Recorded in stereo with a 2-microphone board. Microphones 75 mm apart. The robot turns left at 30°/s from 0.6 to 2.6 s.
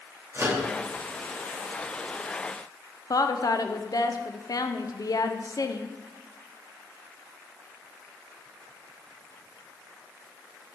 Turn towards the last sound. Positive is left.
turn(degrees=55)  # may be behind; listen again after turning